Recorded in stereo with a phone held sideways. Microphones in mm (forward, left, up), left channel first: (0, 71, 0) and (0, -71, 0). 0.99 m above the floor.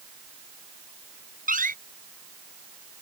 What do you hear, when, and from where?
1.5 s a door slam: 85° right